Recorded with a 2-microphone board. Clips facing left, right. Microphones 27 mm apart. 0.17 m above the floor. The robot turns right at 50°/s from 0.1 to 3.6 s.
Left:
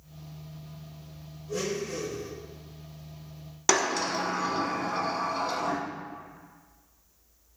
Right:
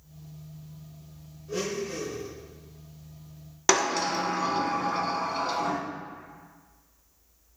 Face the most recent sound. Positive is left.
turn(degrees=-10)  # may be behind; listen again after turning